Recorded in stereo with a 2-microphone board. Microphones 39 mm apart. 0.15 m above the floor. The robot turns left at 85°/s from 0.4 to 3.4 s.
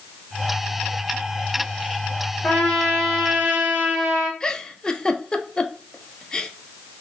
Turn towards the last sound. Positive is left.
turn(degrees=15)  # may be behind; listen again after turning